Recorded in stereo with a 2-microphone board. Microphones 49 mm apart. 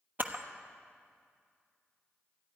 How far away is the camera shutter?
About 1.1 m.